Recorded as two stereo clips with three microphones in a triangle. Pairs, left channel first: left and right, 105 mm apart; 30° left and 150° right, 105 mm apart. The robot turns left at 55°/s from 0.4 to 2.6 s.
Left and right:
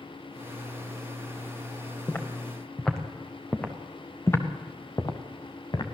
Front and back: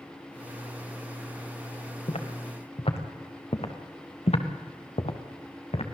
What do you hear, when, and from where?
2.1 s footsteps: 30° left, 3 m; by 5.8 s 45° left, 2 m